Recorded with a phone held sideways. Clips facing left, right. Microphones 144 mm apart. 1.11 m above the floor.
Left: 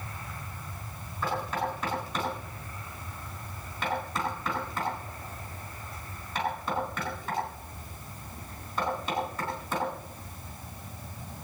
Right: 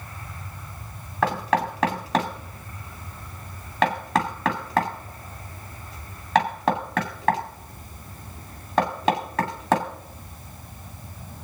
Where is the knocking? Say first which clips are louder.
Right 8 dB; 75° right (ahead or behind), 2 m.